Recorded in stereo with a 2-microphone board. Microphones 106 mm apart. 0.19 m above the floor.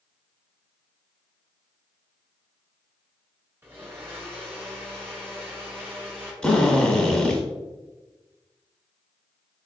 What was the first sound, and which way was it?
A blender, 20° right (ahead or behind).